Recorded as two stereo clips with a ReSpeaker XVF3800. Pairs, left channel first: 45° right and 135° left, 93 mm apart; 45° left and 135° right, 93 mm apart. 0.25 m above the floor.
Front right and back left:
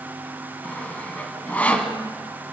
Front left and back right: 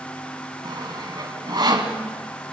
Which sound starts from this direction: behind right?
Sawing, at 0.6 s.